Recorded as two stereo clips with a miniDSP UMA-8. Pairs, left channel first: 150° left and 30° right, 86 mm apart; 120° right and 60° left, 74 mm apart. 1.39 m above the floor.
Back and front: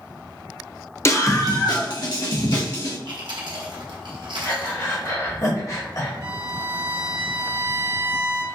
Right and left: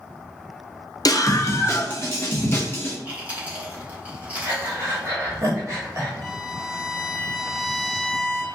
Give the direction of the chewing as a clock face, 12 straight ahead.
12 o'clock.